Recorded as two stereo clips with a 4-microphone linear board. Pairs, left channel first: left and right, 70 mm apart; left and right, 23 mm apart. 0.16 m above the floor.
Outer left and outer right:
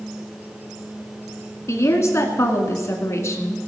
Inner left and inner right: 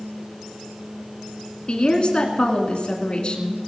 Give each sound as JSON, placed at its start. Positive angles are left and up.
{"t": 1.7, "sound": "a woman speaking", "side_deg": 40, "distance_m": 1.7}